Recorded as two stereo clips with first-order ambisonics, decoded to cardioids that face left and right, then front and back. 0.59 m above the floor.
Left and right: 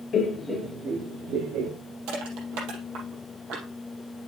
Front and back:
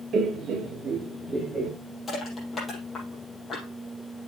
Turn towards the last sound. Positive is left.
turn(degrees=-85)